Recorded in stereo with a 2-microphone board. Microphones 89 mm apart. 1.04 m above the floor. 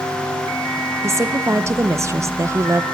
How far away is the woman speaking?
About 0.5 m.